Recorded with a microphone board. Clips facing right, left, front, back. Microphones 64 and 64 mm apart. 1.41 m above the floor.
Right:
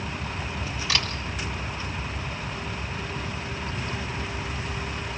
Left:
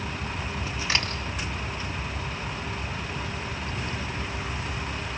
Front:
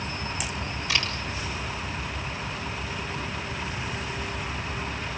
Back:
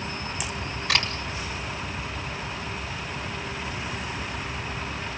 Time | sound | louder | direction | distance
0.9 | a camera shutter | even, back 3 dB | 150° left | 5 m